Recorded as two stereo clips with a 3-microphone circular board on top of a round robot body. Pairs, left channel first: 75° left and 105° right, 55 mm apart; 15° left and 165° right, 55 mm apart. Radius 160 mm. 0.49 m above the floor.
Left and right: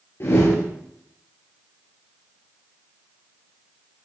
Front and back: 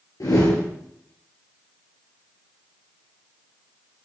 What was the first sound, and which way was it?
A whoosh, 30° left.